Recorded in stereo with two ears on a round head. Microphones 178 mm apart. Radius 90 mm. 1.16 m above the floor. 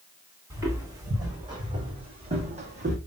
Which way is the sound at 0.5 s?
15° right (ahead or behind).